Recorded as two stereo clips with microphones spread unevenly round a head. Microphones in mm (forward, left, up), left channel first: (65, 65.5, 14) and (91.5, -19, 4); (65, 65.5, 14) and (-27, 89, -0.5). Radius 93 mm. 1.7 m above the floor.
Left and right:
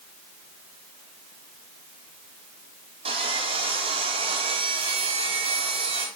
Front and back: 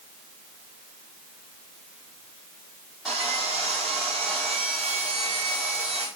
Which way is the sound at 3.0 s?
105° right.